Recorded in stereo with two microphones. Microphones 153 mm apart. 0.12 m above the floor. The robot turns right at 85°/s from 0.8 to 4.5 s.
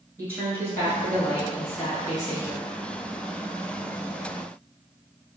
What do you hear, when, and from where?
0.2 s a woman speaking: 20° left, 1.6 m; by 2.7 s straight behind, 1.6 m